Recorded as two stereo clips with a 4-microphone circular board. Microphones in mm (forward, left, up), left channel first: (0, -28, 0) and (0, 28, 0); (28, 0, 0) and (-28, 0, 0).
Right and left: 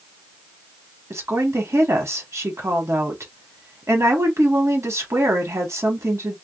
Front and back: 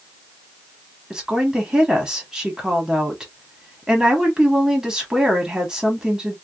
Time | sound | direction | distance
1.1 | a woman speaking | 105° left | 1.5 m